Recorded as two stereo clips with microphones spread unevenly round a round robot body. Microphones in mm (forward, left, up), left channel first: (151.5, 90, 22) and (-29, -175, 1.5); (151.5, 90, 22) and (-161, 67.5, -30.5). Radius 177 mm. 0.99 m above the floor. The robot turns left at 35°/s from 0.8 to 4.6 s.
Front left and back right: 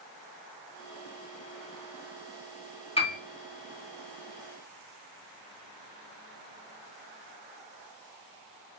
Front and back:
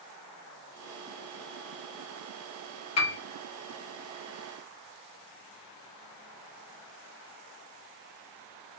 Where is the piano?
15° right, 0.9 m; by 3.2 s 20° right, 0.9 m.